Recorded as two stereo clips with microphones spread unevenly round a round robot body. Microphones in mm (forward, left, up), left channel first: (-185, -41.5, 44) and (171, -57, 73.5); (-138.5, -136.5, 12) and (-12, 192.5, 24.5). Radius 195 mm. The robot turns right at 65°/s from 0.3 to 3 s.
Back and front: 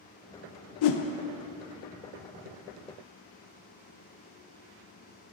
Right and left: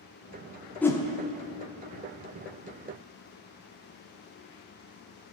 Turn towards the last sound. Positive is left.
turn(degrees=-55)